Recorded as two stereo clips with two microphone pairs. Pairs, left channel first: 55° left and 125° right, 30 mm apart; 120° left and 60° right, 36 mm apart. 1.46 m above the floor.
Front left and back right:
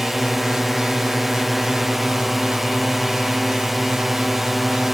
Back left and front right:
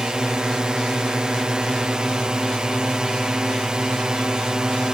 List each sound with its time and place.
0.0 s a drone: 50° right